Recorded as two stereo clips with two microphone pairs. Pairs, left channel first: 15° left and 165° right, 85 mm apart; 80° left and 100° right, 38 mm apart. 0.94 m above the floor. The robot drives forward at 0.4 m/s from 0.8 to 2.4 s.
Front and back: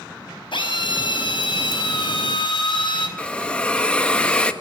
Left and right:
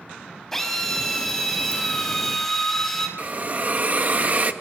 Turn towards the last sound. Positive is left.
turn(degrees=-60)